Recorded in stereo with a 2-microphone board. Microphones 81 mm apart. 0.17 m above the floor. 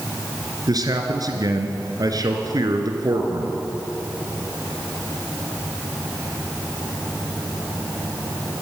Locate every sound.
0.7 s a man speaking: 55° right (ahead or behind), 3 m